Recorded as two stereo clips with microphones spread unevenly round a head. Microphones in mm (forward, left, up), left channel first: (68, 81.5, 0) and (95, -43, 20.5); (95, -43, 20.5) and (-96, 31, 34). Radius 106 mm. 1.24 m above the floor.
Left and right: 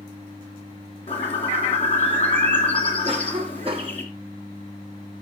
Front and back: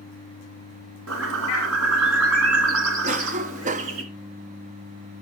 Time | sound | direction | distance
1.1 | a bird | 165° left | 2.5 m
3.0 | a cough | 145° right | 0.6 m